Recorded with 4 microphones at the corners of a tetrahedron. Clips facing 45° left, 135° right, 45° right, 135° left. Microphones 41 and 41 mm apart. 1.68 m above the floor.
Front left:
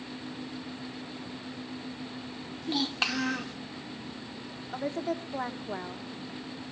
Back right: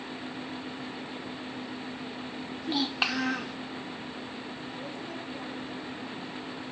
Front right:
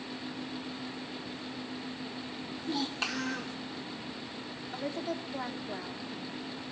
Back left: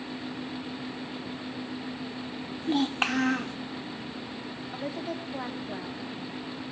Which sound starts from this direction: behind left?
A child speaking, at 2.6 s.